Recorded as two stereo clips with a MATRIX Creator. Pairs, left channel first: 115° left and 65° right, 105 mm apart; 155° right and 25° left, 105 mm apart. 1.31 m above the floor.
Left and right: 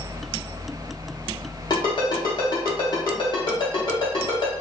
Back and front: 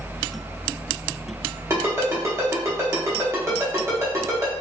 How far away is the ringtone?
About 1.2 m.